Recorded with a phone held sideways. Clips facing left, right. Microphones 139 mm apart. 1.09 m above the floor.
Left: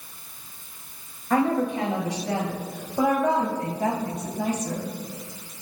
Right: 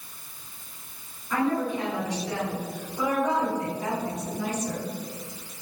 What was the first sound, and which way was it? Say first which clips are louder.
A woman speaking: left 3 dB; 75° left (ahead or behind).